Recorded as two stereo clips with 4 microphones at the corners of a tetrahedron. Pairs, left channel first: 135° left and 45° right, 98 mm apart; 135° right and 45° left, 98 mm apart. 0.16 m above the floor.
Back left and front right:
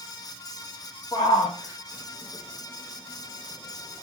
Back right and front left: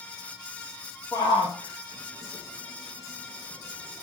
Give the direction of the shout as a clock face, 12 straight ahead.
6 o'clock.